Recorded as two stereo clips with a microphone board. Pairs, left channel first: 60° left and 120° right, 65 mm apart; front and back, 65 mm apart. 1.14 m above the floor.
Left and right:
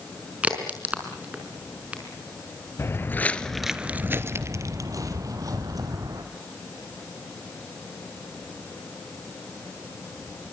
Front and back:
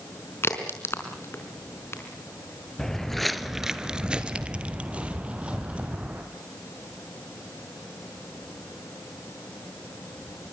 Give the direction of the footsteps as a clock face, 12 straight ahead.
9 o'clock.